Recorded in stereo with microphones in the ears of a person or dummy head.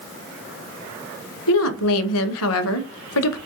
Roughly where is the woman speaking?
Left.